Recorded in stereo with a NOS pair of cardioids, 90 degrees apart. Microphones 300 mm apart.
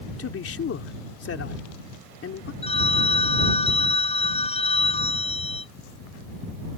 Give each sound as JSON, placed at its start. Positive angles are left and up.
{"t": 0.2, "sound": "a man speaking", "azimuth_deg": 45}
{"t": 2.6, "sound": "a phone ringing", "azimuth_deg": 20}